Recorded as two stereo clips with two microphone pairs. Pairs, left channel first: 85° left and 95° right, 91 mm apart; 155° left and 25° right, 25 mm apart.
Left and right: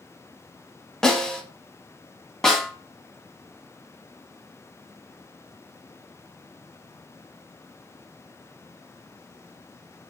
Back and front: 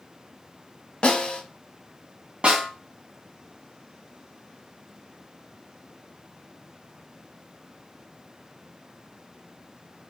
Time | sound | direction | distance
1.0 | a snare drum | 165° left | 0.9 m
2.4 | a snare drum | straight ahead | 1.4 m